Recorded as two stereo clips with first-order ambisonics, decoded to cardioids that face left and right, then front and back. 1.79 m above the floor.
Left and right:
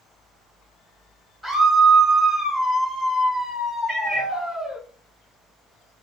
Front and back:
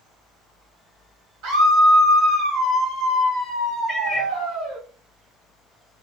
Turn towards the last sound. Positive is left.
turn(degrees=-125)